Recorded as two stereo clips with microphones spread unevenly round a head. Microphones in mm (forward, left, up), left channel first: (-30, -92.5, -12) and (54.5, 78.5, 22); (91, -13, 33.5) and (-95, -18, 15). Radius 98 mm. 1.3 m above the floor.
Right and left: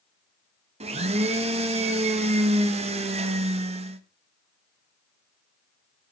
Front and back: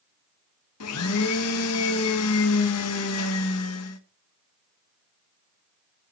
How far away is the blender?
About 1.1 m.